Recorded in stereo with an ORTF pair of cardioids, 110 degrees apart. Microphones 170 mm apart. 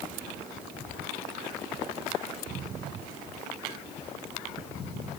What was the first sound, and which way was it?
Only background noise.